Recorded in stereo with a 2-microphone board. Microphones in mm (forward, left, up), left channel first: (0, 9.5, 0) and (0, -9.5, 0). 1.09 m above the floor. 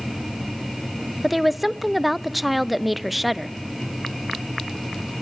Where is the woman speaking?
5° right (ahead or behind), 0.6 m.